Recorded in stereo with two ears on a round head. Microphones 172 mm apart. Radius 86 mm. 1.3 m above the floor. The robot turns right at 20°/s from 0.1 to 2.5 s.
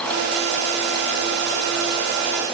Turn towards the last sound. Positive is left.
No sound to turn to.